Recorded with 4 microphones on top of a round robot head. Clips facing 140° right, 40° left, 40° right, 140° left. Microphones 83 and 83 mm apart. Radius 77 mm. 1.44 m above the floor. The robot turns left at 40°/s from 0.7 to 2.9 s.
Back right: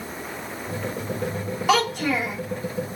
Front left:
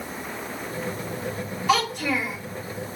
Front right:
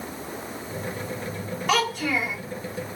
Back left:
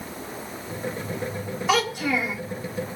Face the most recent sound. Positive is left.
turn(degrees=170)